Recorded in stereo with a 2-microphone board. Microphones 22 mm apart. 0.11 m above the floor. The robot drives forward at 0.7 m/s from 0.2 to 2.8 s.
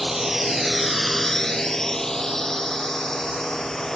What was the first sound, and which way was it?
A drone, 10° right (ahead or behind).